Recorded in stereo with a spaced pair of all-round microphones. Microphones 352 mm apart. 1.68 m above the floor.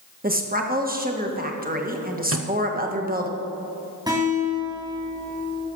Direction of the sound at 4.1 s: 10° right (ahead or behind).